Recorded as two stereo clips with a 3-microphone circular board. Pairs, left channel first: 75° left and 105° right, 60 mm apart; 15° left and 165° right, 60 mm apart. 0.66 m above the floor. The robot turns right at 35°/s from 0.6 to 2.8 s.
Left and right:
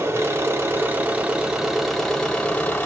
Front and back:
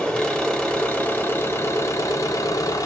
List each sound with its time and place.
0.0 s an engine running: 60° right, 1.0 m; by 2.9 s 15° left, 1.0 m